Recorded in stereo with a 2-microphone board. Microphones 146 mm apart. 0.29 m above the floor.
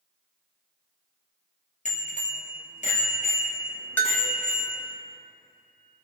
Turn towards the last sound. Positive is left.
turn(degrees=15)  # may be behind; listen again after turning